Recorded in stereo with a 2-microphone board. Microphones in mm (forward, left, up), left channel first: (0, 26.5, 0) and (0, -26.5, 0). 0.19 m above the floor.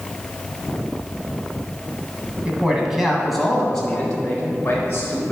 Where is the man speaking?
15° right (ahead or behind), 1.4 m; by 5.3 s 35° left (ahead or behind), 1.6 m.